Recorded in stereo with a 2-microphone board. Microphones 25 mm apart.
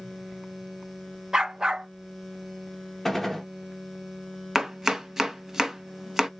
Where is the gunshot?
5° left (ahead or behind), 0.9 m.